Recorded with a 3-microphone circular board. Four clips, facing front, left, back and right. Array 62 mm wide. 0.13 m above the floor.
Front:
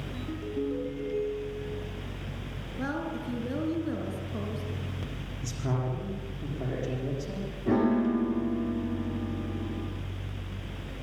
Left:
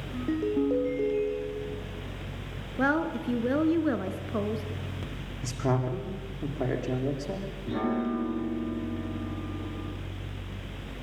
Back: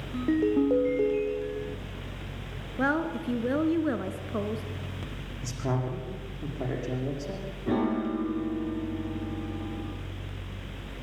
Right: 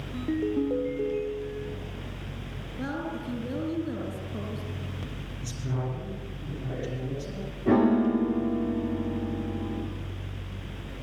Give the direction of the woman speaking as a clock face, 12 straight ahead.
8 o'clock.